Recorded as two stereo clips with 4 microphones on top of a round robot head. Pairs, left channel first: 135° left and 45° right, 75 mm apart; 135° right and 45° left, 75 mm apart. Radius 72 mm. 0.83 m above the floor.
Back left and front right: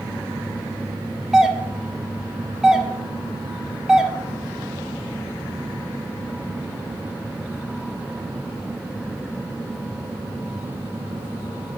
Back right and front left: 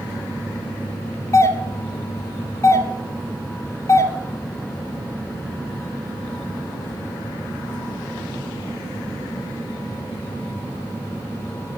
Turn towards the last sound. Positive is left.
turn(degrees=-125)